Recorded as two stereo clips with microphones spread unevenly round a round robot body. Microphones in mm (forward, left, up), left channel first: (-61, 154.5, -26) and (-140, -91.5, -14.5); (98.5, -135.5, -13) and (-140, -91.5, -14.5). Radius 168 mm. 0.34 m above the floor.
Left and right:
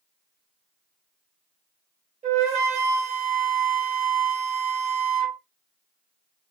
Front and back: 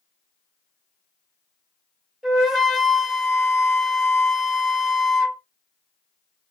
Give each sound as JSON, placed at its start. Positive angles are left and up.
{"t": 2.2, "sound": "a flute", "azimuth_deg": -105, "distance_m": 1.1}